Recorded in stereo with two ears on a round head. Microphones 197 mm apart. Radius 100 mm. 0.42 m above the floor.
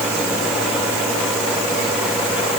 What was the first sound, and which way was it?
Only background noise.